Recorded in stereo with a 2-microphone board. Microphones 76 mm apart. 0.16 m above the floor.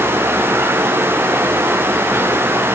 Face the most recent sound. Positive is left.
No sound to turn to.